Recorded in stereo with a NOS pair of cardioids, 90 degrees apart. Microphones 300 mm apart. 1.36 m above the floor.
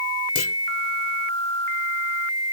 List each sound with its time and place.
0.3 s a clunk: 55° left